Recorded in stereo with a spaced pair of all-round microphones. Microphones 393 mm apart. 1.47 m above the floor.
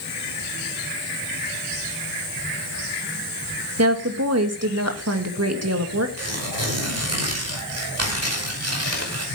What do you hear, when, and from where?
3.8 s a woman speaking: 40° right (ahead or behind), 2 m
6.2 s tearing paper: 40° right (ahead or behind), 5 m